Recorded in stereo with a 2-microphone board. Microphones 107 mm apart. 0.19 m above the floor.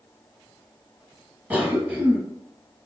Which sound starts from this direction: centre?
A cough, at 1.5 s.